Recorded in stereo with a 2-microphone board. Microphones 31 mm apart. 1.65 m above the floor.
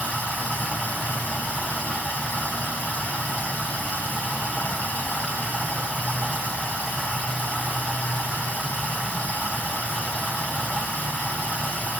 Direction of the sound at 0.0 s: 60° left (ahead or behind).